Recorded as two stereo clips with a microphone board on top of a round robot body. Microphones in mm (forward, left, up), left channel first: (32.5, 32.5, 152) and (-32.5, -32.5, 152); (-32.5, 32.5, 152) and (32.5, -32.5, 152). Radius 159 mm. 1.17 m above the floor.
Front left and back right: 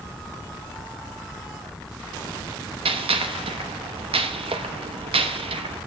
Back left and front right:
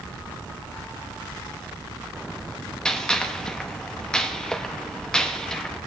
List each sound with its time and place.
2.9 s a gunshot: 145° right, 1.0 m